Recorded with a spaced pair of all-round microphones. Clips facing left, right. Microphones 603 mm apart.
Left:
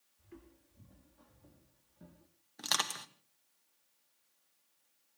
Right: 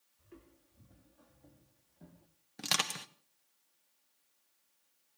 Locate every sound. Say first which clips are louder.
0.2 s footsteps: left 2 dB; 10° left (ahead or behind), 4.5 m; by 2.3 s 40° left (ahead or behind), 6 m
2.6 s crushing: right 3 dB; 55° right (ahead or behind), 1.1 m